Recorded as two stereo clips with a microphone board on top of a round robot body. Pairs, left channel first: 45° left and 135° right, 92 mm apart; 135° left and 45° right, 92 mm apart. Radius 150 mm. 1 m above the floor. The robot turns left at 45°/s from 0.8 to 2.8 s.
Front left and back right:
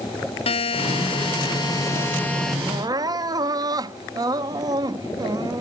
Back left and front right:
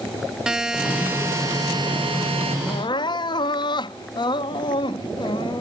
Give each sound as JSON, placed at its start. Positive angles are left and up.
{"t": 0.5, "sound": "a buzzer", "azimuth_deg": 35}
{"t": 2.7, "sound": "crying", "azimuth_deg": 180}